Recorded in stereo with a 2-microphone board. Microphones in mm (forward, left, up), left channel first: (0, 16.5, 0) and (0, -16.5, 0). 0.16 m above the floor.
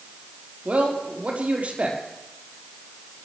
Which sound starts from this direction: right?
A man speaking, at 0.7 s.